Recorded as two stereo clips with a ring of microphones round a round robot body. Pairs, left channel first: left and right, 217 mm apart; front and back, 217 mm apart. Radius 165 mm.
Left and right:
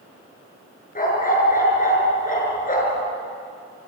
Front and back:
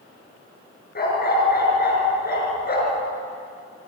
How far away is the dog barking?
About 6 m.